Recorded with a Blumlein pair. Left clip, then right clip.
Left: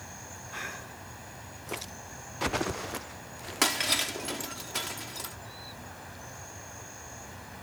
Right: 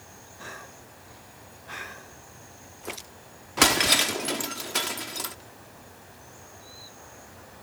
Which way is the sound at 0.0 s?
20° left.